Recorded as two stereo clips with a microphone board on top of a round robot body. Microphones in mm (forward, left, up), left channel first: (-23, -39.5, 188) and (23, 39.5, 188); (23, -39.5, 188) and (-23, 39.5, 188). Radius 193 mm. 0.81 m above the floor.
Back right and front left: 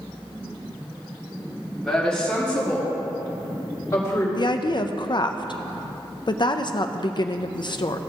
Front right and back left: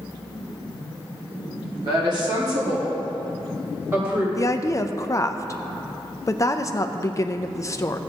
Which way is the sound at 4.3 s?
105° right.